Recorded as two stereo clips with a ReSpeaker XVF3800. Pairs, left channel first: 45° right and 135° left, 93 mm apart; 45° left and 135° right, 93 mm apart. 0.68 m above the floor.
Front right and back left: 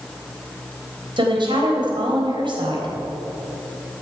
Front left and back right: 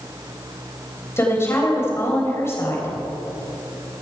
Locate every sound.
1.2 s a woman speaking: 105° left, 3.5 m